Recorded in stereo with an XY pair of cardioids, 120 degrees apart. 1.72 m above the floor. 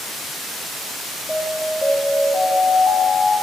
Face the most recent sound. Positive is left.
turn(degrees=10)